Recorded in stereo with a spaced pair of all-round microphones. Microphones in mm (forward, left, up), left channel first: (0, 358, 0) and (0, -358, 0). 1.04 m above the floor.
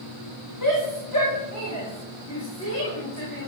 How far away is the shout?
About 4 m.